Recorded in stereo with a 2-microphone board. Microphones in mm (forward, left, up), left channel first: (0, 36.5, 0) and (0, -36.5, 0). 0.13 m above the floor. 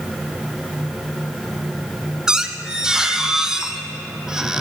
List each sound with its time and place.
2.3 s a squeak: 10° right (ahead or behind), 1.2 m